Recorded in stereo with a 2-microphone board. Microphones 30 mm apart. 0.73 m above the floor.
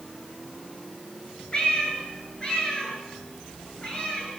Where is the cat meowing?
30° left (ahead or behind), 7 m.